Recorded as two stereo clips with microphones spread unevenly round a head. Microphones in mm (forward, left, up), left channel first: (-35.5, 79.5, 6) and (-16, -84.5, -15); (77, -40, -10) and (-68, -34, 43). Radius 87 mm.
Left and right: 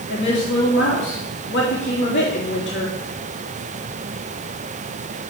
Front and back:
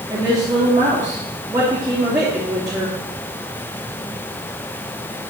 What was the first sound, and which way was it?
A woman speaking, 115° left.